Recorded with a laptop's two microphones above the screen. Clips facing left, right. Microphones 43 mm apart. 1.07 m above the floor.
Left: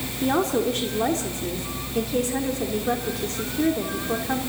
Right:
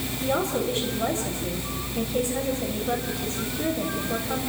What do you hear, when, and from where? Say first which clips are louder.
0.2 s a woman speaking: left 4 dB; 70° left (ahead or behind), 3.5 m